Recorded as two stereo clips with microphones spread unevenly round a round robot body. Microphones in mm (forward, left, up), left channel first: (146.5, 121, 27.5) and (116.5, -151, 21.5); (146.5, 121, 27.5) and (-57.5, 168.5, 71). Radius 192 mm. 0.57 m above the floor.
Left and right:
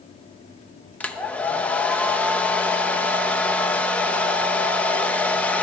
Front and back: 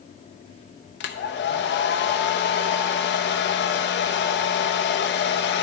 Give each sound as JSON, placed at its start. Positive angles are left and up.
{"t": 1.0, "sound": "a hair dryer", "azimuth_deg": 0, "distance_m": 0.6}